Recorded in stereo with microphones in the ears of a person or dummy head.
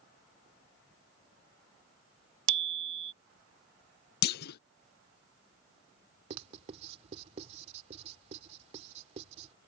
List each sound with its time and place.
2.5 s a bicycle bell: 35° right (ahead or behind)
4.2 s a clunk: 65° left (ahead or behind)
6.3 s writing: 40° right (ahead or behind)